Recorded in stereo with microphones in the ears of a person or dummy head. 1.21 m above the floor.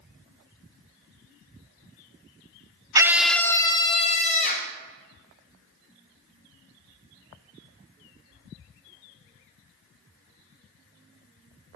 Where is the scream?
15° right (ahead or behind), 0.8 m; by 4.7 s 45° left (ahead or behind), 2 m.